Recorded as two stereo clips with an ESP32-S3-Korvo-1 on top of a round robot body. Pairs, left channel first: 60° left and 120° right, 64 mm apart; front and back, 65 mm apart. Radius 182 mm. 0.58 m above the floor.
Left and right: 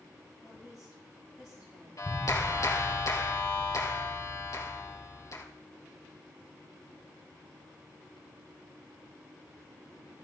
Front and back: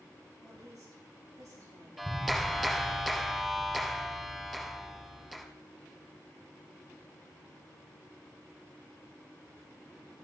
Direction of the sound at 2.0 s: 95° left.